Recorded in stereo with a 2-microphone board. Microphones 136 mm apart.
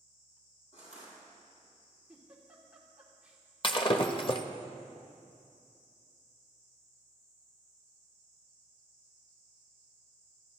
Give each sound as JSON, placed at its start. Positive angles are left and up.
{"t": 0.7, "sound": "crushing", "side_deg": 60, "distance_m": 7.0}
{"t": 2.1, "sound": "a giggle", "side_deg": -10, "distance_m": 2.5}
{"t": 3.6, "sound": "breaking glass", "side_deg": 40, "distance_m": 0.9}